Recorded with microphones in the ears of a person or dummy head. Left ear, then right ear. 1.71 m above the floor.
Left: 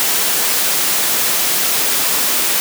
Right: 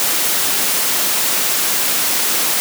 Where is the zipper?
I don't hear a zipper.